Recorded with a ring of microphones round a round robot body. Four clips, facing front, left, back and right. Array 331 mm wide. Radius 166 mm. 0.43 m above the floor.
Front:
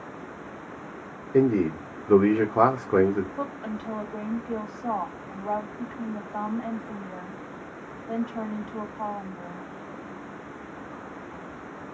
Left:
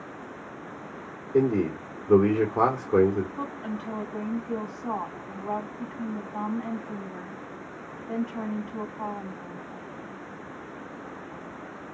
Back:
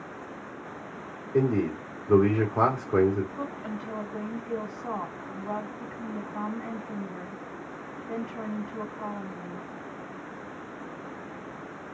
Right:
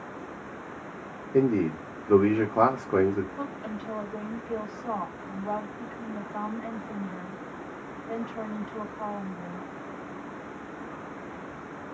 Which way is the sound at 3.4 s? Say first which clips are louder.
Left 2 dB, front 2 dB; 10° right.